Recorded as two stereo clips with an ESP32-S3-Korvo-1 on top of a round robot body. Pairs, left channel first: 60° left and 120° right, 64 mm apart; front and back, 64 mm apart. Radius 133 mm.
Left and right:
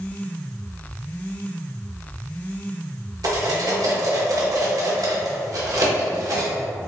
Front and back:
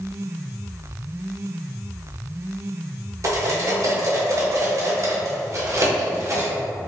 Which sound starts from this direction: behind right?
Cutlery clinking, at 3.2 s.